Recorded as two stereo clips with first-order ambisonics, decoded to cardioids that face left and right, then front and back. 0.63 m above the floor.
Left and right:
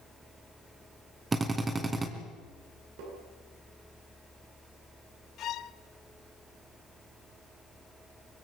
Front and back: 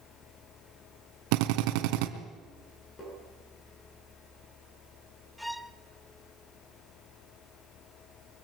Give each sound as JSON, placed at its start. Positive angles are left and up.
{"t": 1.3, "sound": "a drill", "azimuth_deg": -165, "distance_m": 2.0}
{"t": 3.0, "sound": "tapping", "azimuth_deg": -70, "distance_m": 10.0}
{"t": 5.4, "sound": "a violin", "azimuth_deg": 85, "distance_m": 0.7}